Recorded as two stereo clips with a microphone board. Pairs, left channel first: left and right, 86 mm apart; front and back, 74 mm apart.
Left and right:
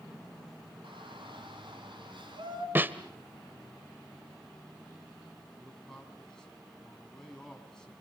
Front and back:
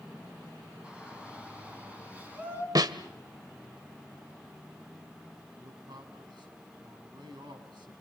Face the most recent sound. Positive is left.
turn(degrees=175)